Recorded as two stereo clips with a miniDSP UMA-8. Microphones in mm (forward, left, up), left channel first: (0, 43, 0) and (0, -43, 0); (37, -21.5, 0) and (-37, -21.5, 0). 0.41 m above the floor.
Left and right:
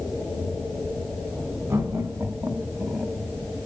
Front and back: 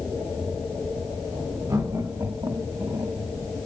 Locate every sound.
1.7 s laughter: 150° right, 4 m; by 3.2 s 165° right, 2.5 m